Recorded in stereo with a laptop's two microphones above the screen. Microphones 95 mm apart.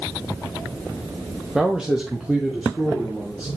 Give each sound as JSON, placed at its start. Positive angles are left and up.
{"t": 1.6, "sound": "a man speaking", "side_deg": -5, "distance_m": 0.8}